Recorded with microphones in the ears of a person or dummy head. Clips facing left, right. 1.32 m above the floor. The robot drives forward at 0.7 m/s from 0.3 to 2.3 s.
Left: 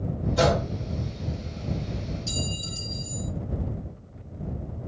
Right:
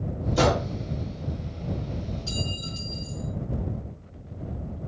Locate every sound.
0.4 s a gunshot: 60° right (ahead or behind), 3 m; by 0.7 s 55° right (ahead or behind), 3 m
2.3 s a clink: 5° right (ahead or behind), 2 m